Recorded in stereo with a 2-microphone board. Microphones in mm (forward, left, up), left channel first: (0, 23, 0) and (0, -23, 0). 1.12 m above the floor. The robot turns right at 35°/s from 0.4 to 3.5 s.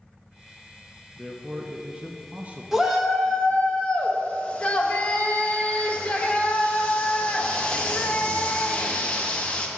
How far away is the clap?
No clap in this recording.